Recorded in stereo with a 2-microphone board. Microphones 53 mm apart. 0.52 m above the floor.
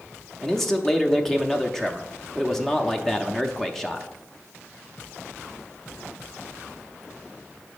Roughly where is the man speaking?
Centre.